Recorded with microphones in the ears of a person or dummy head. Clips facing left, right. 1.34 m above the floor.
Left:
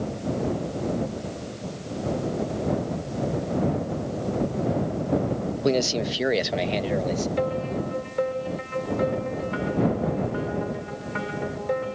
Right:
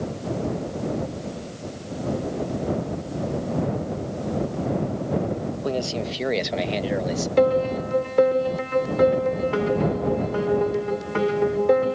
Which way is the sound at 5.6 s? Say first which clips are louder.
Left 5 dB; 30° left (ahead or behind).